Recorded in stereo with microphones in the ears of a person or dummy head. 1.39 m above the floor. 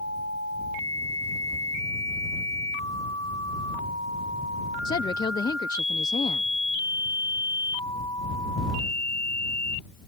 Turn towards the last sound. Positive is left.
turn(degrees=20)  # may be behind; listen again after turning